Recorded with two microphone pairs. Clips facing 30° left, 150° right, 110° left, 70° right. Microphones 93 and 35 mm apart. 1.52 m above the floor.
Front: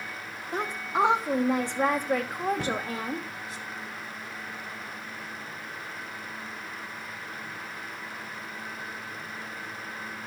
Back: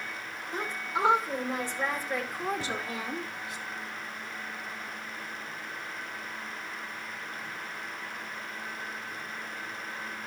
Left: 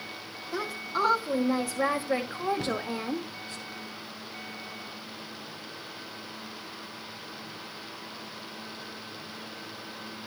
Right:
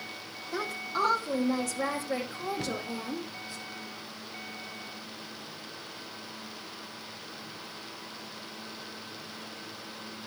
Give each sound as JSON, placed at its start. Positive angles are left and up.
{"t": 0.5, "sound": "a woman speaking", "azimuth_deg": 20, "distance_m": 2.5}
{"t": 2.6, "sound": "a cupboard door", "azimuth_deg": 25, "distance_m": 0.9}